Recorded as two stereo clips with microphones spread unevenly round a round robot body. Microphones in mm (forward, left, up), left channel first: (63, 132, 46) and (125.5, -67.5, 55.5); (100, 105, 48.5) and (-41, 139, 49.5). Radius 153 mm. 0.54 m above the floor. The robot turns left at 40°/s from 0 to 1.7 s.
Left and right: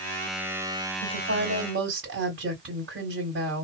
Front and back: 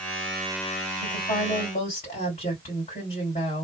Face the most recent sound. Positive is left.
turn(degrees=-55)